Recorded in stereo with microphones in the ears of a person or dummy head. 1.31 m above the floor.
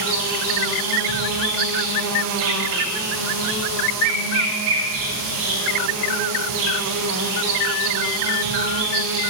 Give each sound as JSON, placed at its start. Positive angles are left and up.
{"t": 0.0, "sound": "an insect", "side_deg": -65, "distance_m": 0.7}